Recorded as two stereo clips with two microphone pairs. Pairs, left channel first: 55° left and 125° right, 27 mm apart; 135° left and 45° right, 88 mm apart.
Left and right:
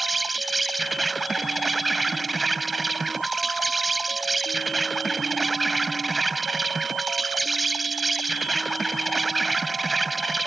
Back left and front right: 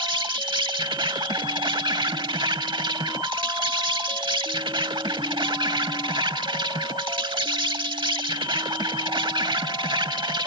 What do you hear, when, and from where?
0.0 s an insect: 35° right